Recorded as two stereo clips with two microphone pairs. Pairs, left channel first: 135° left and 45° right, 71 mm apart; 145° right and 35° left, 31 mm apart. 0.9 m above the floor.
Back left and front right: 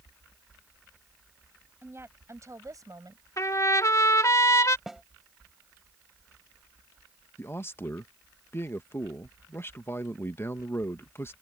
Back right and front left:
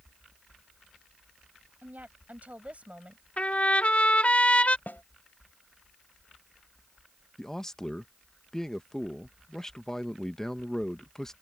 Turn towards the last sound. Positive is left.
turn(degrees=150)